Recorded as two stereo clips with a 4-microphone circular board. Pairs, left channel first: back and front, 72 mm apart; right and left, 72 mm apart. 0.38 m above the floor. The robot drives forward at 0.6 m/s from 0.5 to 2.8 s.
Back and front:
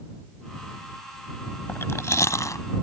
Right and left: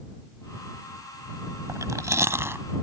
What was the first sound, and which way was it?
Chewing, 125° left.